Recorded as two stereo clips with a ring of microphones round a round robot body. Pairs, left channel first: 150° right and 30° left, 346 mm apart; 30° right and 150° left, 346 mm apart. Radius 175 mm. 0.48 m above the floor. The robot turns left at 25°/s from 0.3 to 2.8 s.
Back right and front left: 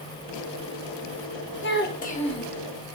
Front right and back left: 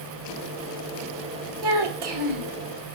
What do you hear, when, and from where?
1.6 s a child speaking: 155° left, 1.8 m; by 2.5 s 130° left, 1.8 m